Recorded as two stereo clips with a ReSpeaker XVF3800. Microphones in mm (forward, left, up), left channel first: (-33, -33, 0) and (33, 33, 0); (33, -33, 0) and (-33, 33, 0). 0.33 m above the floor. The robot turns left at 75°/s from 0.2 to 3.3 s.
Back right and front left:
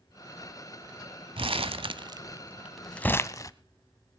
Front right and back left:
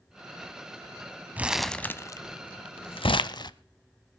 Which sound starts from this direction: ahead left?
Crumpling, at 1.4 s.